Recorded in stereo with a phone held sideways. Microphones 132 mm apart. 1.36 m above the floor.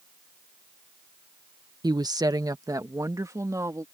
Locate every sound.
1.8 s a woman speaking: 30° right (ahead or behind); by 3.8 s 25° right (ahead or behind)